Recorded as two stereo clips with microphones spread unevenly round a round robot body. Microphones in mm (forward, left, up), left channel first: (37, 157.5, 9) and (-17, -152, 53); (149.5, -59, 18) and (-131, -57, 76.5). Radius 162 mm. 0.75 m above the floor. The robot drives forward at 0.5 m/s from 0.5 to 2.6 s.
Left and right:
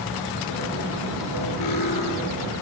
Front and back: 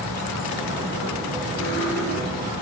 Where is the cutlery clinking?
45° left, 8 m.